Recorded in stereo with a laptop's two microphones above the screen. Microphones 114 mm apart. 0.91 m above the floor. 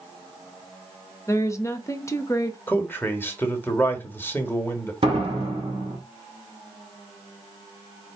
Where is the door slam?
50° right (ahead or behind), 1.4 m.